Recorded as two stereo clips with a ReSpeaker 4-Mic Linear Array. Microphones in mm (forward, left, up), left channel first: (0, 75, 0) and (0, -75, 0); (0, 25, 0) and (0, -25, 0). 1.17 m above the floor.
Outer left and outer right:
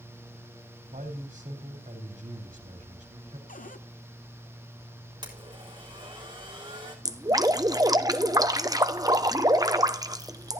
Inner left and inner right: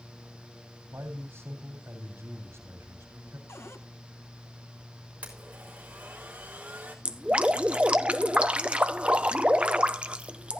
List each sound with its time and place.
0.9 s a man speaking: 60° right (ahead or behind), 3.5 m
3.5 s a cupboard door: 60° left (ahead or behind), 0.9 m
5.2 s a blender: 30° right (ahead or behind), 3.5 m
7.0 s dripping: 25° right (ahead or behind), 0.8 m